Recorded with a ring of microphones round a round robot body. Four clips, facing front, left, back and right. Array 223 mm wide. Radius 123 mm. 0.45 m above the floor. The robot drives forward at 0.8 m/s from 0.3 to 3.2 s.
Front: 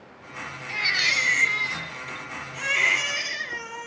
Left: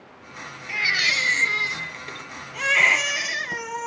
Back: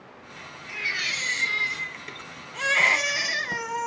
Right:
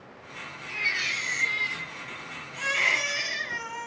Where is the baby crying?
50° left, 1.2 m; by 3.9 s 145° left, 1.5 m.